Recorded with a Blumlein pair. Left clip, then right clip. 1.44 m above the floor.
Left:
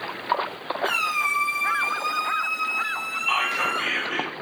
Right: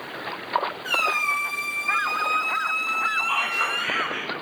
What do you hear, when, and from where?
0.8 s a squeak: 20° left, 1.1 m
3.3 s whispering: 40° left, 0.7 m